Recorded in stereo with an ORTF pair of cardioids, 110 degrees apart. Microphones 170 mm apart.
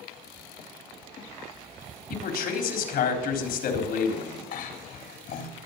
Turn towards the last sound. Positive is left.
turn(degrees=65)